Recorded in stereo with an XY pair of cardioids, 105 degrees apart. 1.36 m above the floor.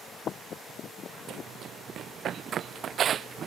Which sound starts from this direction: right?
Running footsteps, at 1.3 s.